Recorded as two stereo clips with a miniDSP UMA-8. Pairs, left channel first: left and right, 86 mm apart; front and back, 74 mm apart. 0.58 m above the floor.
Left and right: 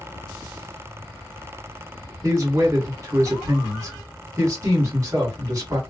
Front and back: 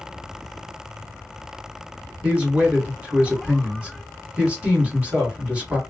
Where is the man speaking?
110° right, 1.5 m.